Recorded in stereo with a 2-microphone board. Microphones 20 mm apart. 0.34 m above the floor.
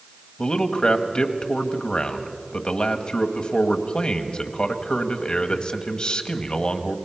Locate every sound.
0.4 s a man speaking: 55° left (ahead or behind), 1.5 m